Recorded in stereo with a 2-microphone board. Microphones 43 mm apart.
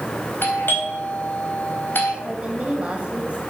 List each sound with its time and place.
0.4 s a doorbell: 60° left (ahead or behind), 3.5 m
2.2 s a woman speaking: 30° right (ahead or behind), 3 m